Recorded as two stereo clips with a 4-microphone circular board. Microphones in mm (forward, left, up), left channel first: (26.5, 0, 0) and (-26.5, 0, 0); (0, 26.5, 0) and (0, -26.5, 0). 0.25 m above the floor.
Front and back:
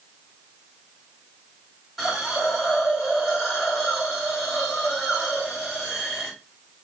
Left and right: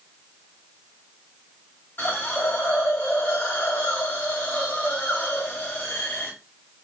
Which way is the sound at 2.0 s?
90° left.